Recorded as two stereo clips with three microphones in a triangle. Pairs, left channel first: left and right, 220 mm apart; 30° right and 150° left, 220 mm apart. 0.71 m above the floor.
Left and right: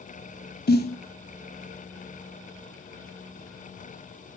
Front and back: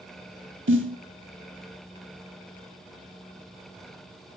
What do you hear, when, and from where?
0.7 s a snare drum: 130° left, 1.2 m